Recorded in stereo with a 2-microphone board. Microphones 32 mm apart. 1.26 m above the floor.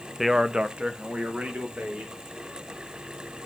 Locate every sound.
0.2 s a man speaking: 10° right (ahead or behind), 0.7 m; by 2.2 s 55° right (ahead or behind), 2.5 m